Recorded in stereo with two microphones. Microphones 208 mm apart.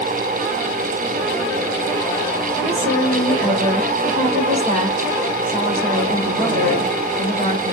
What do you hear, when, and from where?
2.6 s a woman speaking: 30° right (ahead or behind), 3.5 m